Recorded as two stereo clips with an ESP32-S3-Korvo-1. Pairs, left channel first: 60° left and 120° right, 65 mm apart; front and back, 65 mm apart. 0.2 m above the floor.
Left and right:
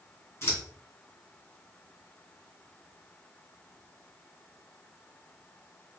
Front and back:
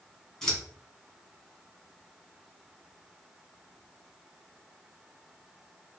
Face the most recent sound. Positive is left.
turn(degrees=80)